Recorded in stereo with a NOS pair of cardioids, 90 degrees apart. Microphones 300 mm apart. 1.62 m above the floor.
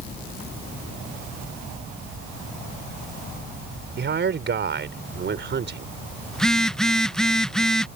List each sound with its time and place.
4.0 s a man speaking: 40° right
6.3 s a phone buzzing: straight ahead